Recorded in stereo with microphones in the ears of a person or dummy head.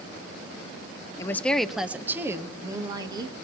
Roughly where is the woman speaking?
Centre.